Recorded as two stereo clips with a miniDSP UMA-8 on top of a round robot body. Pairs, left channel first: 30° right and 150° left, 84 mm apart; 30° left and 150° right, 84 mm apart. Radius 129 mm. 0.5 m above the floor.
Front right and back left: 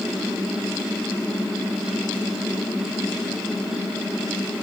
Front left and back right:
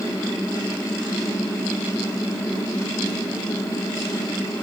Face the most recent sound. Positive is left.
No sound to turn to.